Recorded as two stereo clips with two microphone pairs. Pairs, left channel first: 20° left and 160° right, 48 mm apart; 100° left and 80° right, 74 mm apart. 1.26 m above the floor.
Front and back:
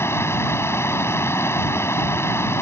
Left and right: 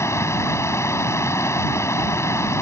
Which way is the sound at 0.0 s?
45° left.